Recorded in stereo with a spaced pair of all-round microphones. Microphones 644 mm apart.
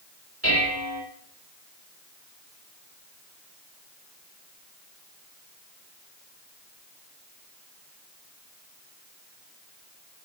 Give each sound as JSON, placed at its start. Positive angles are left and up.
{"t": 0.4, "sound": "dishes clattering", "side_deg": 20, "distance_m": 4.0}